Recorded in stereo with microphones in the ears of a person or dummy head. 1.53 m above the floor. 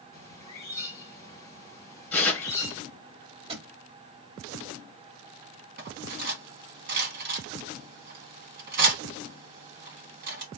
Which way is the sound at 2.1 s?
5° left (ahead or behind).